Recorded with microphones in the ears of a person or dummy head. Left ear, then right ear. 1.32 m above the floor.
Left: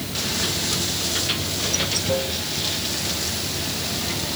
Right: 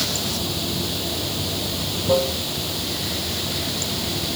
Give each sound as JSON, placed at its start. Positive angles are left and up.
{"t": 0.0, "sound": "running water", "side_deg": -55}